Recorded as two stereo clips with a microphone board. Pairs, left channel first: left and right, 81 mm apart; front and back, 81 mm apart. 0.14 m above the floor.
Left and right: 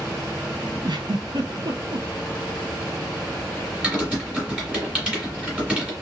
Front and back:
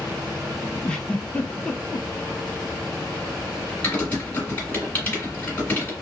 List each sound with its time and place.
0.8 s a giggle: 80° right, 0.7 m
3.8 s typing on a keyboard: 30° right, 1.8 m